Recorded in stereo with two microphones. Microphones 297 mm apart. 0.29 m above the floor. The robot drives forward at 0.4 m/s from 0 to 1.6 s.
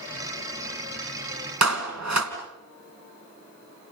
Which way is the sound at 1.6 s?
65° right (ahead or behind).